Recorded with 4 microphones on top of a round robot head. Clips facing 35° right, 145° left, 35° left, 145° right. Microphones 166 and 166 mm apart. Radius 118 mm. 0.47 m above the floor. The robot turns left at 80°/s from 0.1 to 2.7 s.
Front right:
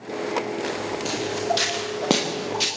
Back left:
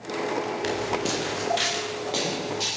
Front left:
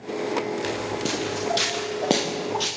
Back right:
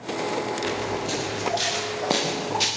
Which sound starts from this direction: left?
Footsteps, at 0.6 s.